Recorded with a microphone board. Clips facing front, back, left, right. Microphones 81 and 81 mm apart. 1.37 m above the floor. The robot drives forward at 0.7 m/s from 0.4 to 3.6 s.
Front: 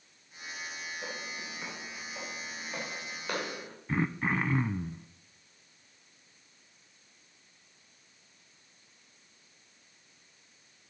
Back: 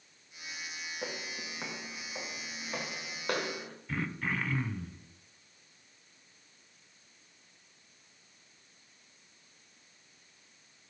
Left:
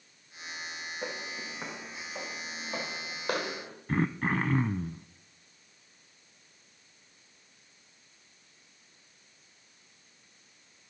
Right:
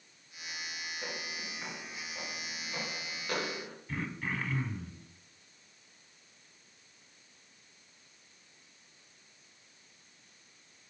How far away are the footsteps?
About 3 m.